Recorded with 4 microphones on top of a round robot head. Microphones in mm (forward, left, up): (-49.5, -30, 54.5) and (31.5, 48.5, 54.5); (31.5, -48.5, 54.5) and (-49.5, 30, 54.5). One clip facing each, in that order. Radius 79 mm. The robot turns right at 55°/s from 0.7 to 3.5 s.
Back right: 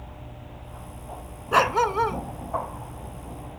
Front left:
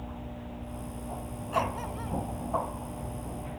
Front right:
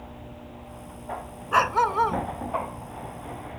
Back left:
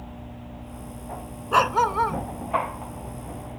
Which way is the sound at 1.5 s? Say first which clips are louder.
Back right 11 dB, back left 1 dB; 160° right.